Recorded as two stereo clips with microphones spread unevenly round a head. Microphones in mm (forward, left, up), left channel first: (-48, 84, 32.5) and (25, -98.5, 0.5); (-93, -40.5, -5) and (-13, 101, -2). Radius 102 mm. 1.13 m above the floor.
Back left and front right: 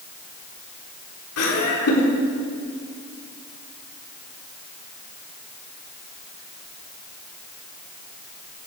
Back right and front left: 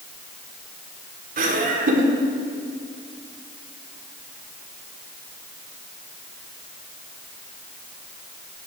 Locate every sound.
1.4 s laughter: 95° left, 4 m